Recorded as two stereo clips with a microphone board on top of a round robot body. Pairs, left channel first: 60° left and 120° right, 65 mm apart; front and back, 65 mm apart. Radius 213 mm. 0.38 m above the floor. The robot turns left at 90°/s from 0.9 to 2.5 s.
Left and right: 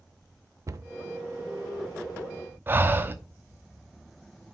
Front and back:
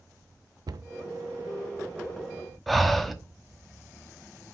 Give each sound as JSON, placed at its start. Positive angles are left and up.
{"t": 0.7, "sound": "a cupboard door", "azimuth_deg": -160, "distance_m": 0.7}
{"t": 2.7, "sound": "breathing", "azimuth_deg": -90, "distance_m": 1.2}